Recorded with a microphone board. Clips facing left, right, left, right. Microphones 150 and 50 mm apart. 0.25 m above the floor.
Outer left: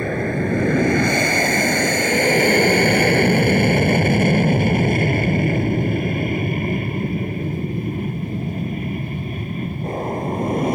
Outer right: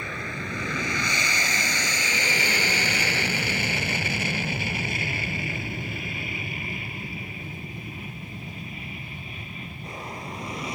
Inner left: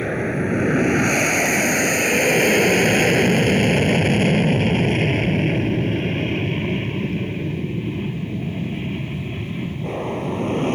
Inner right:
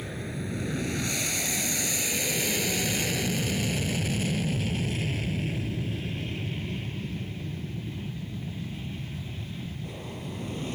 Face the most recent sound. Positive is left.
turn(degrees=50)  # may be behind; listen again after turning